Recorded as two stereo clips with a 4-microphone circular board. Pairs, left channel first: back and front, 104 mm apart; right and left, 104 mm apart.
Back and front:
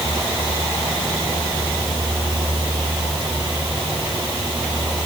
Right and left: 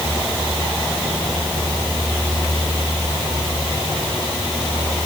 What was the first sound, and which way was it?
Only background noise.